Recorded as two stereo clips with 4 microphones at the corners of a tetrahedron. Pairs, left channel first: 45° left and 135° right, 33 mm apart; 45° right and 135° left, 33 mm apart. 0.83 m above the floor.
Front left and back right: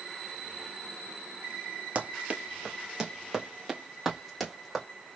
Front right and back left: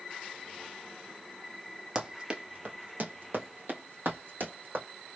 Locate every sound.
1.9 s running footsteps: 165° right, 1.0 m; by 4.8 s 130° left, 2.5 m